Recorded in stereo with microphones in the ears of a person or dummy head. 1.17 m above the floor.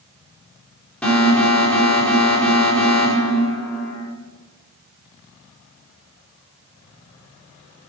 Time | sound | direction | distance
1.0 | an alarm | 10° left (ahead or behind) | 4.5 m